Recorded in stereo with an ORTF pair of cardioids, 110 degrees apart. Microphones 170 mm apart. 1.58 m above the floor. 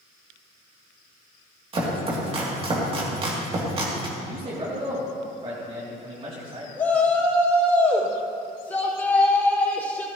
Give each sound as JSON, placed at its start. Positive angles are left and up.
{"t": 1.7, "sound": "chopping", "azimuth_deg": -35, "distance_m": 3.0}
{"t": 4.2, "sound": "a man speaking", "azimuth_deg": -35, "distance_m": 3.0}
{"t": 6.8, "sound": "a shout", "azimuth_deg": 10, "distance_m": 5.0}